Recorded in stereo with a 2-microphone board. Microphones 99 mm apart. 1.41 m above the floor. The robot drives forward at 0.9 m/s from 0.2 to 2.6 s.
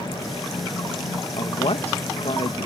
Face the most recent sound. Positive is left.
turn(degrees=65)  # may be behind; listen again after turning